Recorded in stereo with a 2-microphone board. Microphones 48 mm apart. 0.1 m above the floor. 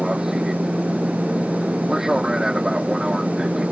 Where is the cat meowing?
No cat meowing in this recording.